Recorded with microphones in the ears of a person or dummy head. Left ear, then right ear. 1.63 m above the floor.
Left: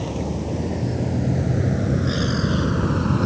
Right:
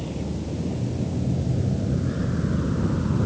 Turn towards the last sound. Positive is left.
turn(degrees=70)  # may be behind; listen again after turning